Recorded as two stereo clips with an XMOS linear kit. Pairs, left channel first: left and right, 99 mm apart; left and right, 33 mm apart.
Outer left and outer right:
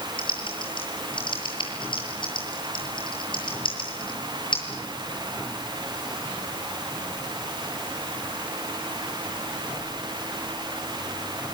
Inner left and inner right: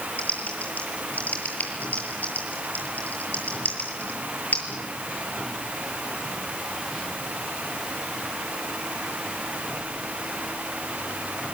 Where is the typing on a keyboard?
60° left (ahead or behind), 7.5 m.